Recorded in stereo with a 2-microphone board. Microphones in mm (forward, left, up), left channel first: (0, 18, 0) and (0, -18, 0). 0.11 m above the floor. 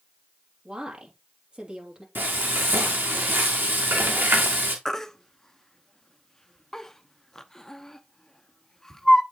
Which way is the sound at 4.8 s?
10° left (ahead or behind).